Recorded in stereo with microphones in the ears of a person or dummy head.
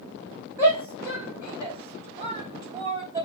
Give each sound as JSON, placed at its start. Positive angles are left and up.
{"t": 0.6, "sound": "a shout", "side_deg": -20, "distance_m": 1.4}